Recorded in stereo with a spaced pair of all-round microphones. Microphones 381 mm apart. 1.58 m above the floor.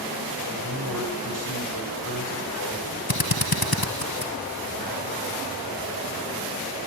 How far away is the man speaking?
About 9 m.